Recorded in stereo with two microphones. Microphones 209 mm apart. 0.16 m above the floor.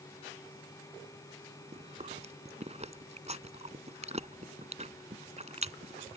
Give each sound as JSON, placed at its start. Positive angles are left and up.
{"t": 1.7, "sound": "chewing", "side_deg": -30}